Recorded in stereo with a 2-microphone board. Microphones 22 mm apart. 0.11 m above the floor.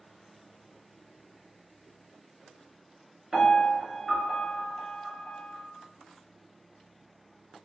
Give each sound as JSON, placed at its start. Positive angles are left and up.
{"t": 3.3, "sound": "a piano", "side_deg": -20, "distance_m": 1.2}